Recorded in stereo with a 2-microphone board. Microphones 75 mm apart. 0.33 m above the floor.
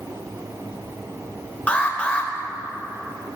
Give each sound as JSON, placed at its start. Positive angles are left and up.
{"t": 1.7, "sound": "an alarm", "side_deg": 15, "distance_m": 0.7}